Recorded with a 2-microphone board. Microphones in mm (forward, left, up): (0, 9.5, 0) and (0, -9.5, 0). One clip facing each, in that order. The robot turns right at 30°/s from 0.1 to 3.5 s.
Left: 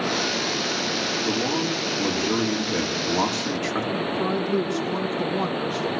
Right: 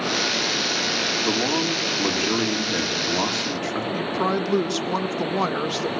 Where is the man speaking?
55° right, 3.5 m; by 3.8 s 10° left, 3.5 m.